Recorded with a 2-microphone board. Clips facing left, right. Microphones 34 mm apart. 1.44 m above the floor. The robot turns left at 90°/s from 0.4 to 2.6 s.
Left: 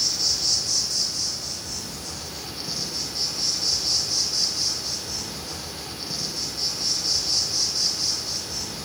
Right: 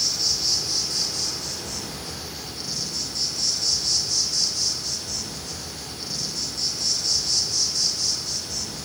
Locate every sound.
0.0 s an insect: straight ahead, 1.2 m; by 8.9 s 160° left, 1.2 m